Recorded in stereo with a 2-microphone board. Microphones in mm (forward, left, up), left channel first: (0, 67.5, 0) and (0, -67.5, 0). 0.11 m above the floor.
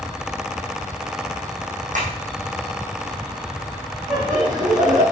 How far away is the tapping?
About 3.5 m.